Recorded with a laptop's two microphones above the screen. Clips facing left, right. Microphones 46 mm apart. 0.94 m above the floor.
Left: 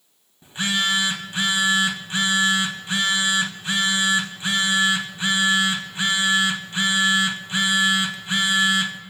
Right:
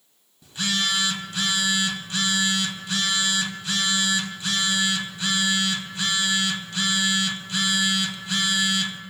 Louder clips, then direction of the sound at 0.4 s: Left 3 dB; 30° left (ahead or behind).